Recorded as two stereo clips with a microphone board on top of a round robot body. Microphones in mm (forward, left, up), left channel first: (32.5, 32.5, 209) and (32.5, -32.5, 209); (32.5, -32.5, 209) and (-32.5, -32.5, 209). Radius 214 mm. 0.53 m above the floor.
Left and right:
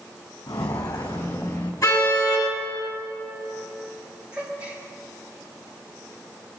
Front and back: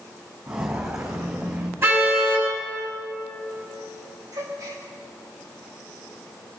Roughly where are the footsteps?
Behind left.